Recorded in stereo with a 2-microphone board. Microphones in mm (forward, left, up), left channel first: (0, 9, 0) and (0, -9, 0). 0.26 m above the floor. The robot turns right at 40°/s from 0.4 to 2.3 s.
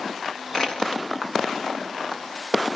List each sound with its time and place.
0.5 s crushing: 35° left (ahead or behind), 3 m; by 1.0 s 15° left (ahead or behind), 3 m